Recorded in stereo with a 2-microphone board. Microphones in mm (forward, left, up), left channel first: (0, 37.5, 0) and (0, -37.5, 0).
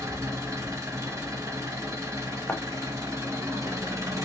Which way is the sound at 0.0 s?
45° right (ahead or behind).